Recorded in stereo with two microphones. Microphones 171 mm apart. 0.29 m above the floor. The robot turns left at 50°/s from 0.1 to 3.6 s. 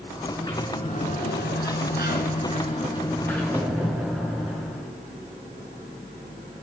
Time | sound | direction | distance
0.2 | a sliding door | 165° left | 3 m